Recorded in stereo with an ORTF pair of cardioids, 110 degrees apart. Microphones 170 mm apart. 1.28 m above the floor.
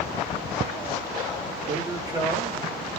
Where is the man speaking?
20° right, 1.9 m.